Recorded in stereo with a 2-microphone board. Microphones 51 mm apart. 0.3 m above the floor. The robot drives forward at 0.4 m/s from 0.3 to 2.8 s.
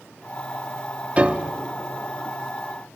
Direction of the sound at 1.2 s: 25° right (ahead or behind).